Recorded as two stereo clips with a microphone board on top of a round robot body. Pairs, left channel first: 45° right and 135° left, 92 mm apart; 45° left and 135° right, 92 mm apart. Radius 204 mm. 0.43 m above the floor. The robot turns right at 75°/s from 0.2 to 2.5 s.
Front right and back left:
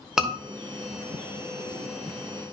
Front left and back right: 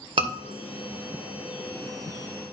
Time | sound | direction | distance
0.2 | a scream | 140° right | 2.5 m